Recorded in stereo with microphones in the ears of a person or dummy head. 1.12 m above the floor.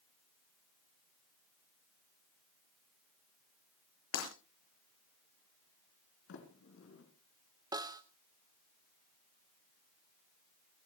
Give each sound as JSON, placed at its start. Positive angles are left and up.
{"t": 4.1, "sound": "breaking glass", "side_deg": 80, "distance_m": 7.0}
{"t": 6.3, "sound": "a sliding door", "side_deg": 70, "distance_m": 3.5}
{"t": 7.7, "sound": "a snare drum", "side_deg": -25, "distance_m": 0.8}